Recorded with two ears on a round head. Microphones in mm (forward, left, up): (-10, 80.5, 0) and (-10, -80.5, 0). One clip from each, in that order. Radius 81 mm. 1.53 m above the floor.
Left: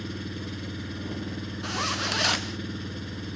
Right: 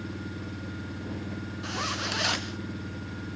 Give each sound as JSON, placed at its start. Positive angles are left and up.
{"t": 0.0, "sound": "an engine running", "side_deg": 55}
{"t": 1.6, "sound": "a zipper", "side_deg": 5}